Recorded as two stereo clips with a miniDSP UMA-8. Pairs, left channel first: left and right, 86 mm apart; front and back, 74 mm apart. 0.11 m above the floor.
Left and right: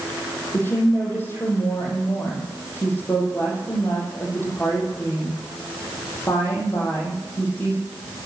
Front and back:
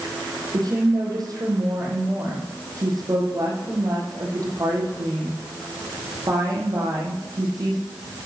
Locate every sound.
0.5 s a woman speaking: 150° left, 4 m